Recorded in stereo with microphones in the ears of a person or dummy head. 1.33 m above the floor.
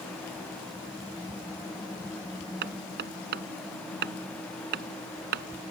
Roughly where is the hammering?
Right.